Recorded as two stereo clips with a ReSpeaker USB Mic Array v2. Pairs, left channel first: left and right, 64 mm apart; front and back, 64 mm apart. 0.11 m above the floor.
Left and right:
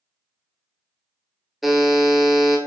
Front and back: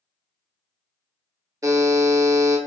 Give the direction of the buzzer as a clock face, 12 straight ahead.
6 o'clock.